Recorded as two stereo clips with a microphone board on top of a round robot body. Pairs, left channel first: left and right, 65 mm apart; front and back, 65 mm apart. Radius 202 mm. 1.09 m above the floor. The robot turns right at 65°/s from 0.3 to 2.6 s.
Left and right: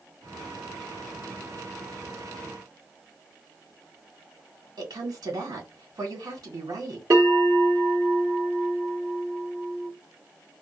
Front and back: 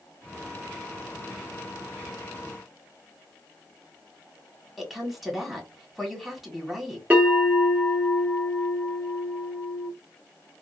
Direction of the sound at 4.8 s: 95° right.